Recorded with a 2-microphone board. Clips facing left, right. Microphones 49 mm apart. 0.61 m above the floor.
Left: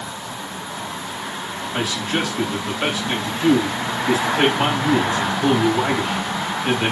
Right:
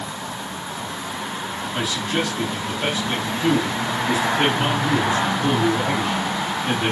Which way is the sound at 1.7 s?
35° left (ahead or behind).